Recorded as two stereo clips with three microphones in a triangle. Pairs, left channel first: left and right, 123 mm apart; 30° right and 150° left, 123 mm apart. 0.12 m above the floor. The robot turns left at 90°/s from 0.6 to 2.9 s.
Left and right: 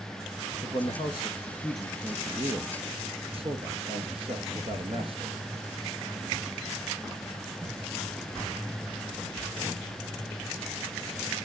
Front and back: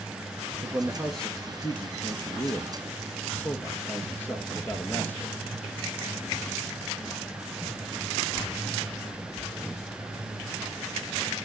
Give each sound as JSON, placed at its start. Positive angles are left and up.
{"t": 0.6, "sound": "a man speaking", "azimuth_deg": 105, "distance_m": 1.6}